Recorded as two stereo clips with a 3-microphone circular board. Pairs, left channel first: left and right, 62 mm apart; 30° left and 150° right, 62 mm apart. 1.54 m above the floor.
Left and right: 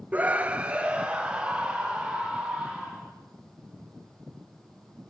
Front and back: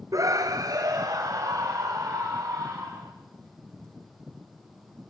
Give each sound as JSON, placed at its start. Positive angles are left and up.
{"t": 0.1, "sound": "a scream", "azimuth_deg": -155, "distance_m": 0.6}